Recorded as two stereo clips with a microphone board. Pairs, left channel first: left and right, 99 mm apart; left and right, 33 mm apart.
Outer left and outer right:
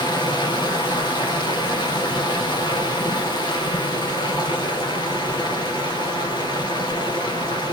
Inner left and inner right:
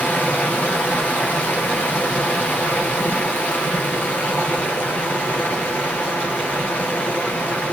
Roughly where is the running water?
Left.